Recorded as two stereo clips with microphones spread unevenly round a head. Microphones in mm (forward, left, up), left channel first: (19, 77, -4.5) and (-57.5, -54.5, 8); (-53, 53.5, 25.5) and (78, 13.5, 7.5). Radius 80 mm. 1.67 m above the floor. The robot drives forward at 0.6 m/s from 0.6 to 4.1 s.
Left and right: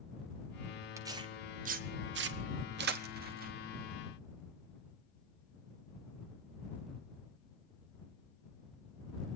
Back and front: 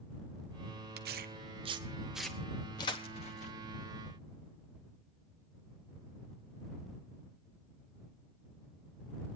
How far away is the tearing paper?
About 0.8 m.